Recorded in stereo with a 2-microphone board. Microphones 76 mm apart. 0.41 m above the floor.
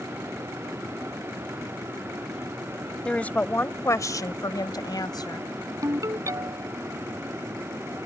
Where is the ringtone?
45° right (ahead or behind).